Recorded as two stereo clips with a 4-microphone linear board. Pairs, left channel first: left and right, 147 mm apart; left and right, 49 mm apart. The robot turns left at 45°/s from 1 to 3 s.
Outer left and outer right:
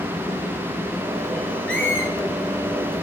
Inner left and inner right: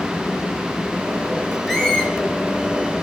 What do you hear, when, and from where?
1.7 s a squeak: 5° left (ahead or behind), 2.5 m; by 2.1 s 25° left (ahead or behind), 2.5 m